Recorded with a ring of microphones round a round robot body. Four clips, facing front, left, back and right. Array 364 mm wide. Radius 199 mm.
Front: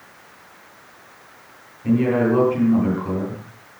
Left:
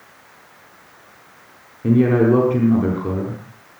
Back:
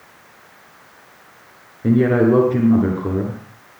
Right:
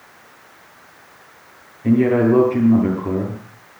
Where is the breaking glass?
I don't hear breaking glass.